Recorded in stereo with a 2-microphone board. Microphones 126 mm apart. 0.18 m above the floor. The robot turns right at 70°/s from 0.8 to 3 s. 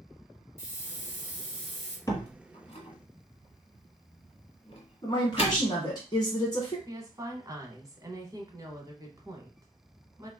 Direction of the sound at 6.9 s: 25° right (ahead or behind).